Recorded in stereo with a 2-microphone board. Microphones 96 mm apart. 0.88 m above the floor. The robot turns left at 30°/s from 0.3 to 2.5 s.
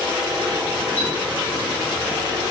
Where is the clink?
20° left (ahead or behind), 1.0 m; by 1.1 s 25° left (ahead or behind), 1.0 m.